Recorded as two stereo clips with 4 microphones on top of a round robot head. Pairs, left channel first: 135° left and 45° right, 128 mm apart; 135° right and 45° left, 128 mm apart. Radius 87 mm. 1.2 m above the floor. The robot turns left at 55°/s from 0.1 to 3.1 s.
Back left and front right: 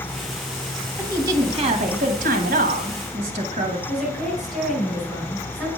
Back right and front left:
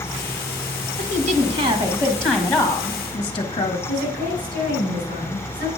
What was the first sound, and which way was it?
A woman speaking, 40° left.